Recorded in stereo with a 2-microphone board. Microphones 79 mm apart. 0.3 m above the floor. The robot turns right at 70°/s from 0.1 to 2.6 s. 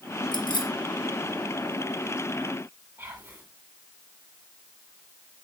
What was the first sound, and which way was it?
Keys jangling, 70° left (ahead or behind).